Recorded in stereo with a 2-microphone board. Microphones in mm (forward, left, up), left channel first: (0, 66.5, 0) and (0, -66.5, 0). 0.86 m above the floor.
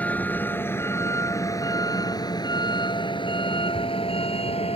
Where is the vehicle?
10° left (ahead or behind); by 4.8 s 50° left (ahead or behind).